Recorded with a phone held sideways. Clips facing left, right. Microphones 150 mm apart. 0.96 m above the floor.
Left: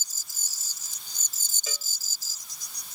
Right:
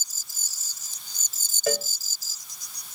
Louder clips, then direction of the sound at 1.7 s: Right 17 dB; 65° right (ahead or behind).